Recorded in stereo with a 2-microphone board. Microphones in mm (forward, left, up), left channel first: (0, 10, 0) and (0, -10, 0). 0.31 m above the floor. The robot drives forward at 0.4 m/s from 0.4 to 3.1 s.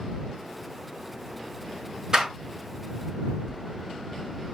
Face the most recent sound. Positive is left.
turn(degrees=15)  # may be behind; listen again after turning